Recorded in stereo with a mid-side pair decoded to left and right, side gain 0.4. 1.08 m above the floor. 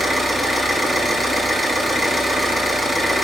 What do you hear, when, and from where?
0.0 s an engine running: 10° left, 7 m